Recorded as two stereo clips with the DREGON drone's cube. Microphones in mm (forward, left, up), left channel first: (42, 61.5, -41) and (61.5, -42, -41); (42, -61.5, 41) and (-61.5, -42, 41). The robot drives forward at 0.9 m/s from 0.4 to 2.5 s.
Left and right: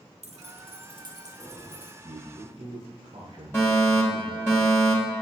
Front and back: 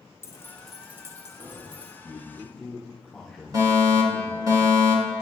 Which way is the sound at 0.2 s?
80° right.